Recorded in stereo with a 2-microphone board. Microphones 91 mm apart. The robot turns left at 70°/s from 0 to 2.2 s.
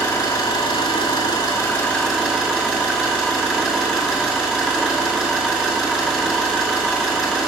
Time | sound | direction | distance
0.0 | an engine running | 145° left | 2 m